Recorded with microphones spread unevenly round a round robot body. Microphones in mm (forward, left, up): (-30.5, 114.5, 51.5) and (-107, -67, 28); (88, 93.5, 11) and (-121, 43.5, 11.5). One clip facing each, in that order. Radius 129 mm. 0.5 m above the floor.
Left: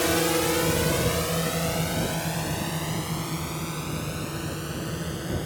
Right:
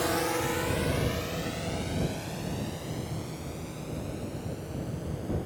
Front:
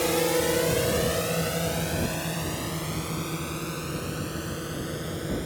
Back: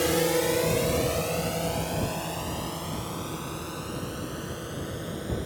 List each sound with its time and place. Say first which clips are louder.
0.0 s a drone: left 5 dB, even; 115° left; by 5.5 s 75° left